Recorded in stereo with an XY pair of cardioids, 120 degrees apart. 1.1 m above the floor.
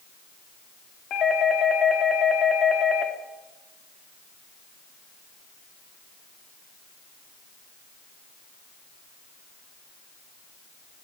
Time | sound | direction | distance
1.1 | a doorbell | 50° left | 4 m